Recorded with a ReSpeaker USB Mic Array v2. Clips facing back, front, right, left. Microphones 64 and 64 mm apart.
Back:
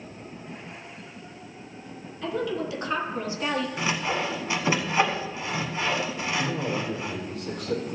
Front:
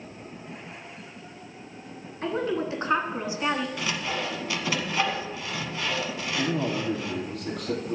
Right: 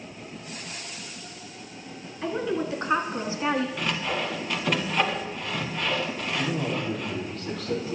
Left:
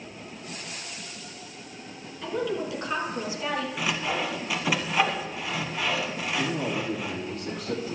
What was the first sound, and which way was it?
A woman speaking, 35° right.